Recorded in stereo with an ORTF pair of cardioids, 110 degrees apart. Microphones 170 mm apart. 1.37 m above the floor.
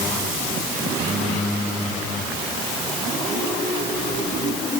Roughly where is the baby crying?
No baby crying in this recording.